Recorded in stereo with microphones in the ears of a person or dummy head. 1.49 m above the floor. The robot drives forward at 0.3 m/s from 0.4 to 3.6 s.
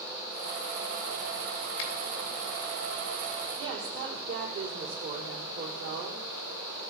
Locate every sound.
1.8 s a finger snap: 75° left (ahead or behind), 2.5 m
3.6 s a woman speaking: 75° right (ahead or behind), 3 m